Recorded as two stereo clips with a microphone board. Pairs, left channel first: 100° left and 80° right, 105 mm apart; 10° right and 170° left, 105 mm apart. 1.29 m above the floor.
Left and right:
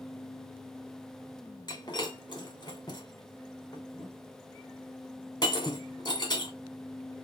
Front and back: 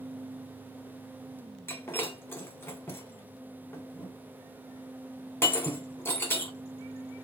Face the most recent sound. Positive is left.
turn(degrees=55)